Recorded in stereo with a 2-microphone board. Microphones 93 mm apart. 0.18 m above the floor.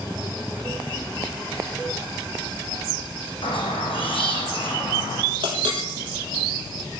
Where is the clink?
55° right (ahead or behind), 4 m.